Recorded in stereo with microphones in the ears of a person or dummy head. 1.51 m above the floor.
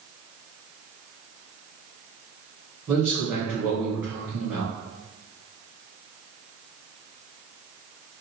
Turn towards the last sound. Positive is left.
turn(degrees=-10)  # may be behind; listen again after turning